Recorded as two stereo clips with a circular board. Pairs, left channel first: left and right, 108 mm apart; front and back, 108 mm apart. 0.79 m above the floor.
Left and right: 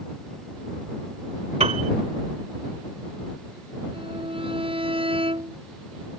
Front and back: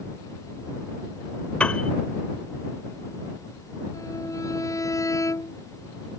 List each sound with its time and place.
1.6 s a piano: 80° right
3.9 s a violin: 60° right